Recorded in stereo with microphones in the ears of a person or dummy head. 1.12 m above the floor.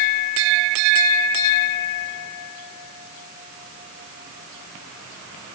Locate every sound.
Only background noise.